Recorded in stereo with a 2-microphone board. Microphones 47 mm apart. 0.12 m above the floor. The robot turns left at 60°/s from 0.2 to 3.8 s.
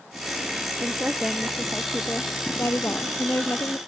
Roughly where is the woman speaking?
Behind right.